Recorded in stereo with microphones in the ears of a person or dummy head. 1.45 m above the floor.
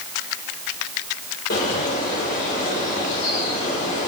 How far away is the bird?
About 6 m.